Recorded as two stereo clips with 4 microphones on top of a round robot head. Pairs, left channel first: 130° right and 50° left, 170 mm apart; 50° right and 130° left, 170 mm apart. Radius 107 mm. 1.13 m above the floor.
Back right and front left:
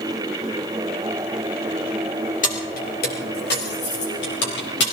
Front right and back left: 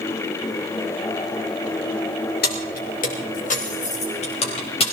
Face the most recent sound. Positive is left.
turn(degrees=-110)